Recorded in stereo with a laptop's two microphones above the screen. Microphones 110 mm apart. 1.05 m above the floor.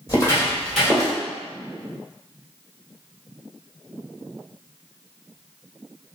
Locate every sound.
0.1 s footsteps: 35° left (ahead or behind), 1.6 m; by 1.1 s 15° right (ahead or behind), 1.6 m